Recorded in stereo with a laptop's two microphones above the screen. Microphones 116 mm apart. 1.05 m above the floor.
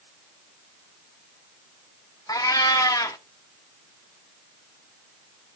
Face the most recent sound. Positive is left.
turn(degrees=30)  # may be behind; listen again after turning